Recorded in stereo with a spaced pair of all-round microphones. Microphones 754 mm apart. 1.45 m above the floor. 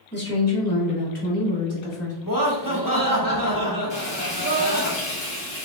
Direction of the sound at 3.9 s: 10° left (ahead or behind).